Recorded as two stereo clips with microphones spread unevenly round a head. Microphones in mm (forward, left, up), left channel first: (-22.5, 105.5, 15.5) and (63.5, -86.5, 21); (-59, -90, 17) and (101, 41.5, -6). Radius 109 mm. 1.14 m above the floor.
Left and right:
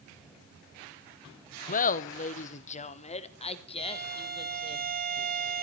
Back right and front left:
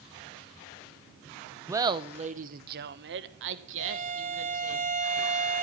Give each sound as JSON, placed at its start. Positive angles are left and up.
{"t": 1.7, "sound": "laughter", "azimuth_deg": 100, "distance_m": 0.8}
{"t": 3.8, "sound": "a violin", "azimuth_deg": -20, "distance_m": 3.0}